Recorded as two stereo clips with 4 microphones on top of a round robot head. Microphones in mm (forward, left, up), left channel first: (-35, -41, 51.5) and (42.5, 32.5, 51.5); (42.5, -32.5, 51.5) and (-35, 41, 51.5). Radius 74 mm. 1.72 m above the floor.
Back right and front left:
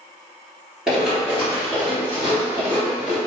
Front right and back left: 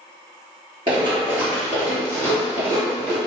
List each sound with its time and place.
0.9 s running footsteps: 125° left, 1.9 m; by 3.2 s 105° left, 2.5 m